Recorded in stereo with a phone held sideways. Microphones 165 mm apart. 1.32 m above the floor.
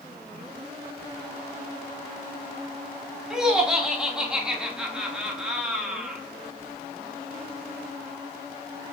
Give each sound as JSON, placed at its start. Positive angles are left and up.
{"t": 3.3, "sound": "laughter", "side_deg": -5, "distance_m": 0.8}